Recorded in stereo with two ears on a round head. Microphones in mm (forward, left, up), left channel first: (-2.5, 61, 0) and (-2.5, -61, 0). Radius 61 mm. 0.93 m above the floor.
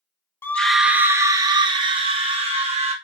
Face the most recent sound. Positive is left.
turn(degrees=-50)  # may be behind; listen again after turning